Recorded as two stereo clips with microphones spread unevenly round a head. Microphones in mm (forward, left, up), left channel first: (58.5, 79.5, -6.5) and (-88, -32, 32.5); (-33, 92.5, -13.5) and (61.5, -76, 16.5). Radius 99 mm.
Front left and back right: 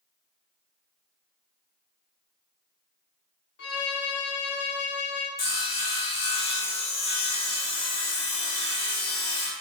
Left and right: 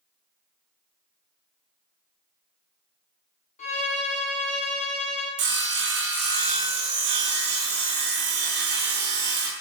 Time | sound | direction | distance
3.6 | a violin | 65° left | 0.5 m
5.4 | sawing | 25° right | 0.5 m